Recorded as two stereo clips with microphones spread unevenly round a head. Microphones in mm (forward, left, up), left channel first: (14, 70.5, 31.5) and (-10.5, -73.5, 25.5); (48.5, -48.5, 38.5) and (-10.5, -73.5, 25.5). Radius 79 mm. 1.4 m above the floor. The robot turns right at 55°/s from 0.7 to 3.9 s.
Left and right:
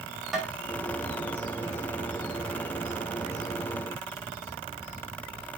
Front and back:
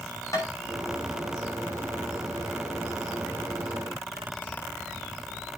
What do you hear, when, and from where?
0.3 s tapping: 10° right, 5.5 m